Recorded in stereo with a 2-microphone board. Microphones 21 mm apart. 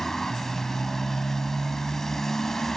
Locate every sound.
0.0 s a motorcycle: 20° left (ahead or behind)